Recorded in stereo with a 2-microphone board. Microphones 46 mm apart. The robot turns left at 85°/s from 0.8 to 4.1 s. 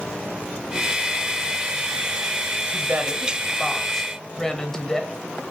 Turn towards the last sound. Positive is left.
turn(degrees=160)